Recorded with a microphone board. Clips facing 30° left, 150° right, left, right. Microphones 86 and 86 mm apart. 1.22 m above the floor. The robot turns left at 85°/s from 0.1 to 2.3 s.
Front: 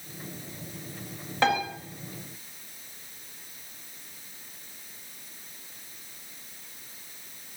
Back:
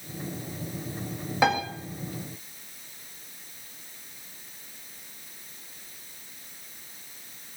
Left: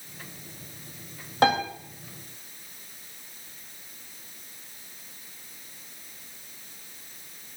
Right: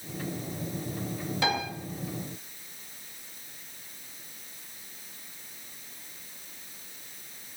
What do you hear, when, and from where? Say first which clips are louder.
1.4 s a piano: back 1 dB, left 8 dB; 130° left, 4 m; by 1.6 s 110° left, 4 m